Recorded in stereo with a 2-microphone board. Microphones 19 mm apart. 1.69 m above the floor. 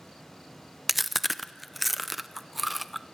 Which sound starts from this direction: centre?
Chewing, at 0.9 s.